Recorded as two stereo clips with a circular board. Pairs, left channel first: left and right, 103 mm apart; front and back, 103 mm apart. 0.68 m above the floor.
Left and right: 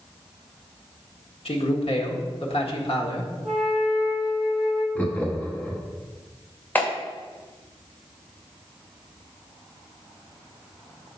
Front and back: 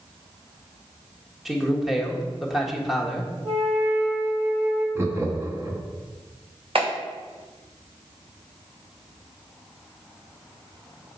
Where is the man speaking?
90° left, 1.4 m.